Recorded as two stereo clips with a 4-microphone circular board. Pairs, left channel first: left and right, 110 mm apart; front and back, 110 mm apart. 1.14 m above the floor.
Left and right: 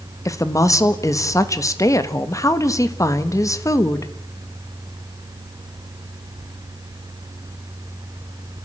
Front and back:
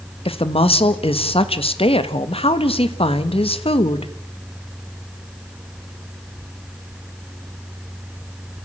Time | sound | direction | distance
0.2 | a woman speaking | 30° left | 1.4 m